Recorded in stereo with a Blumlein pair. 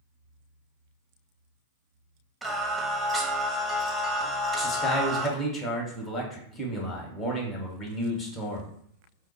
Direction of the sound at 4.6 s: 25° left.